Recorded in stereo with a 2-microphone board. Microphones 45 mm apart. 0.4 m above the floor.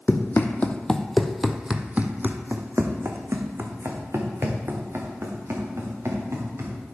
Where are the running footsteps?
50° left (ahead or behind), 0.9 m; by 6.8 s 75° right (ahead or behind), 3.5 m.